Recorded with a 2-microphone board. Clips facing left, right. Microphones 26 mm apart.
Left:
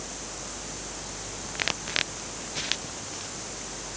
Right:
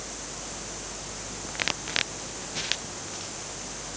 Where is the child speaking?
No child speaking in this recording.